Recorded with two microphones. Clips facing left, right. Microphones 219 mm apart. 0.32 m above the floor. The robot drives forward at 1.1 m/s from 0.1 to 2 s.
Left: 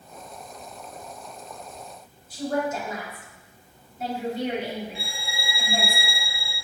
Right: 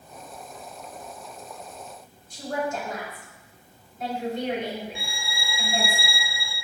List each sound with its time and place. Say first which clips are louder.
2.3 s a woman speaking: left 3 dB; 5° left (ahead or behind), 2.0 m
5.0 s a violin: left 1 dB; 35° left (ahead or behind), 0.6 m